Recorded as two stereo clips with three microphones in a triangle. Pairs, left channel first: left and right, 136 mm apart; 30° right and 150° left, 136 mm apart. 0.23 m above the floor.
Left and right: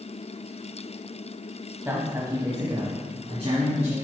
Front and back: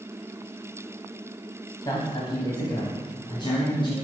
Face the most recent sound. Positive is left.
turn(degrees=-75)